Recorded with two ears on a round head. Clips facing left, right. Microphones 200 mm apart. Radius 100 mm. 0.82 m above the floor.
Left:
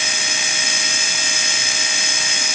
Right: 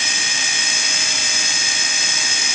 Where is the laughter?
I don't hear laughter.